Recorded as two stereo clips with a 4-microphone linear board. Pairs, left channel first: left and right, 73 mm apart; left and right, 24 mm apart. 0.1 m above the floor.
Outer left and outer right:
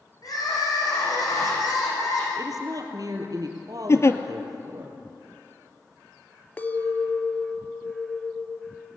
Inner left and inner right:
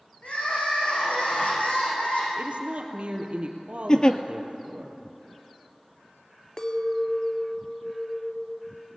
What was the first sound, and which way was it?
Crying, 60° left (ahead or behind).